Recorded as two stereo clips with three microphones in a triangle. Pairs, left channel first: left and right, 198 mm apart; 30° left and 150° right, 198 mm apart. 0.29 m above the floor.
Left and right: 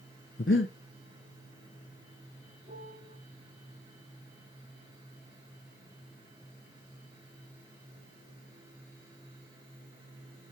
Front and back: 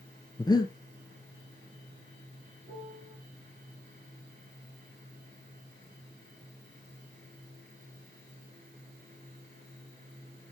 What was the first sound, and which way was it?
Breathing, 100° left.